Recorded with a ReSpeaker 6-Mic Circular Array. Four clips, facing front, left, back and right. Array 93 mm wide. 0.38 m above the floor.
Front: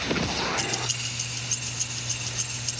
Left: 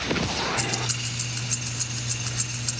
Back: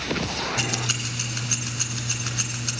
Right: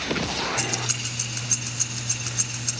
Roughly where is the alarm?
I don't hear an alarm.